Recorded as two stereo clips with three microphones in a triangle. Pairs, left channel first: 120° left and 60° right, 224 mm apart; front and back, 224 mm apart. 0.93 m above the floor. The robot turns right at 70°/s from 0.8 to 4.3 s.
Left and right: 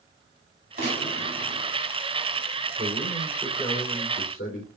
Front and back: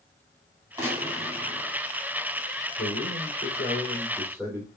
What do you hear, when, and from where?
0.8 s a gunshot: 105° right, 4.5 m; by 1.8 s 40° right, 4.5 m
2.8 s a man speaking: 5° right, 4 m; by 4.7 s 100° left, 4 m